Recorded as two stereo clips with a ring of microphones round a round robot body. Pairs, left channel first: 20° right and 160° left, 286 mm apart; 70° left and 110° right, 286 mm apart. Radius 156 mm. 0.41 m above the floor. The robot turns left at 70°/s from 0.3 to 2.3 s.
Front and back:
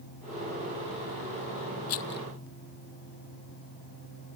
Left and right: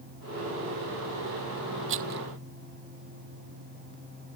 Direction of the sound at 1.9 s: 60° right.